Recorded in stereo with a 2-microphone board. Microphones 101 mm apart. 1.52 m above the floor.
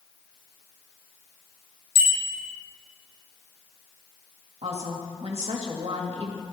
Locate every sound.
1.9 s a bicycle bell: 85° left, 5 m
4.6 s a woman speaking: 85° right, 2.5 m